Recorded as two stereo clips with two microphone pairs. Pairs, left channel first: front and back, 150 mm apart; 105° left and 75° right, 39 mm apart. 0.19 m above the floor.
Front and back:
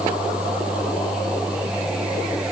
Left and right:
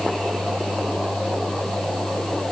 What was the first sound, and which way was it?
Only background noise.